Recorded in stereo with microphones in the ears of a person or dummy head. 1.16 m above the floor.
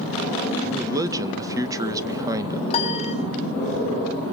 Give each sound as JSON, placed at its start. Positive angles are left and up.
{"t": 0.6, "sound": "a man speaking", "side_deg": -20, "distance_m": 1.4}
{"t": 2.7, "sound": "a piano", "side_deg": 30, "distance_m": 3.0}